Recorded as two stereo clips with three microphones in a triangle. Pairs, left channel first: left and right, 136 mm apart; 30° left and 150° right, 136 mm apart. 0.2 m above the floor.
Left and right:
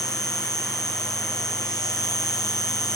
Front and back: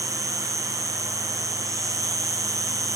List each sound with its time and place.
0.0 s an insect: 150° left, 4 m